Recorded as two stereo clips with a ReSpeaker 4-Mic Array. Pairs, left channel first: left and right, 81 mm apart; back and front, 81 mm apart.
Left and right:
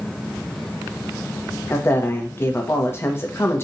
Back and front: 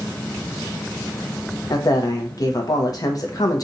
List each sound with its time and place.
1.7 s a man speaking: 145° left, 0.8 m